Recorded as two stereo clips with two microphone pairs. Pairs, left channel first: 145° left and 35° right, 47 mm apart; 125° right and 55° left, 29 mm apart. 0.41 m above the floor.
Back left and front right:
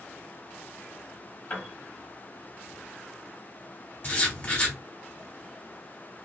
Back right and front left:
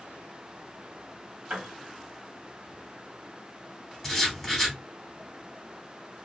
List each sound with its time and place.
1.5 s a piano: 90° left, 0.8 m
4.0 s writing: 150° left, 1.0 m